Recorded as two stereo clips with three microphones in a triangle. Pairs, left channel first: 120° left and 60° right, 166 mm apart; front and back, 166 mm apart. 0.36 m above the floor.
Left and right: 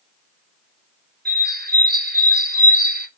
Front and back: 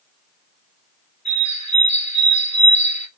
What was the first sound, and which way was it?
A bird, 45° right.